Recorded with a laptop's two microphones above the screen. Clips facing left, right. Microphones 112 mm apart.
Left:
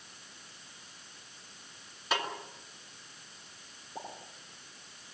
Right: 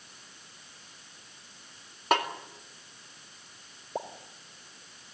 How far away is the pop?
About 2 m.